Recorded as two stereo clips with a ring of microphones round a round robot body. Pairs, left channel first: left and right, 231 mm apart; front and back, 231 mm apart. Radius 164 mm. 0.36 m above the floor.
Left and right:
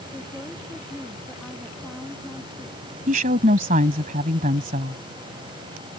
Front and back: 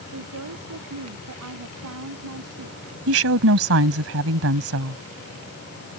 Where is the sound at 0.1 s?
Straight behind.